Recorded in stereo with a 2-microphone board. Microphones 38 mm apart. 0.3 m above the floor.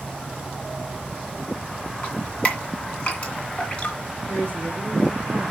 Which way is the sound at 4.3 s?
70° left (ahead or behind).